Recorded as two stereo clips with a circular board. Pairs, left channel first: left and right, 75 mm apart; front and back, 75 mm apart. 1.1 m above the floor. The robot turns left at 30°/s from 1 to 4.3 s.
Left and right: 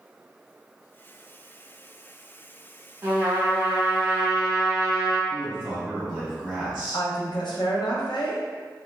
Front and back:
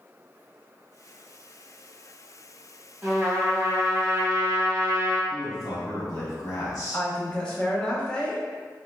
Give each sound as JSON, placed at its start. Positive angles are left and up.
{"t": 3.0, "sound": "a trumpet", "azimuth_deg": -125, "distance_m": 0.8}
{"t": 5.3, "sound": "a man speaking", "azimuth_deg": -15, "distance_m": 1.2}
{"t": 6.9, "sound": "a woman speaking", "azimuth_deg": 75, "distance_m": 0.6}